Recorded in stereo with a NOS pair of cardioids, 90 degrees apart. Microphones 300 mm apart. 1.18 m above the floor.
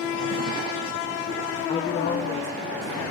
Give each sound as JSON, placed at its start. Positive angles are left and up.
{"t": 1.7, "sound": "a woman speaking", "azimuth_deg": 20, "distance_m": 0.6}